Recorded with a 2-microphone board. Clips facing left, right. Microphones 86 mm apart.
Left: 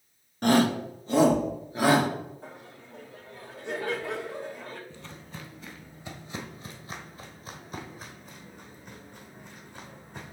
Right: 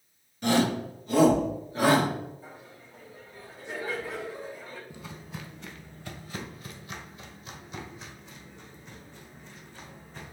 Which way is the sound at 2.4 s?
65° left (ahead or behind).